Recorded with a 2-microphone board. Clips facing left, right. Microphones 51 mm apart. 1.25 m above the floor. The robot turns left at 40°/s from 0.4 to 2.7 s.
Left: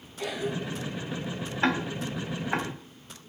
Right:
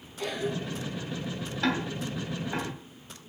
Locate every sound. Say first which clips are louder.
0.2 s a cough: even; 5° left (ahead or behind), 2.5 m; by 1.0 s 15° right (ahead or behind), 2.5 m
1.6 s ticking: left 2 dB; 30° left (ahead or behind), 1.6 m; by 2.7 s 55° left (ahead or behind), 1.6 m